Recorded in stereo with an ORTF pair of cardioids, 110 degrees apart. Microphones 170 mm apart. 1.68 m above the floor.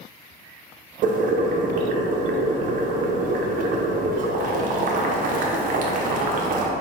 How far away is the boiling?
About 0.6 m.